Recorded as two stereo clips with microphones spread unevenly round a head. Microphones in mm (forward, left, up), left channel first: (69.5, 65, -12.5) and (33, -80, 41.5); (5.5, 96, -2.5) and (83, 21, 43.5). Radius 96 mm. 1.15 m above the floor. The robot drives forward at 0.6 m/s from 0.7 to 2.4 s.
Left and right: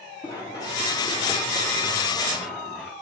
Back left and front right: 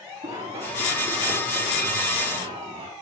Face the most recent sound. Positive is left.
turn(degrees=-15)